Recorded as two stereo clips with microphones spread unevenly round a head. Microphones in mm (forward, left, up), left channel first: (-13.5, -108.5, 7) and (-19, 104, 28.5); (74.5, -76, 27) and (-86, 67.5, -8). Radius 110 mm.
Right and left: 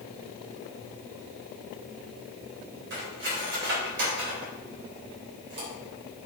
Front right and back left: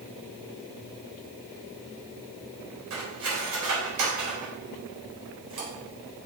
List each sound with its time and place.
2.9 s cutlery clinking: 130° left, 3.5 m